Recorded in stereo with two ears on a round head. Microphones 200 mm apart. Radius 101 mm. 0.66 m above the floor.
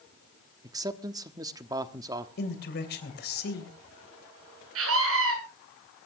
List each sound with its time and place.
0.6 s a man speaking: 15° right (ahead or behind), 0.9 m
2.4 s a man speaking: 50° left (ahead or behind), 3 m
4.8 s a scream: 70° right (ahead or behind), 8.5 m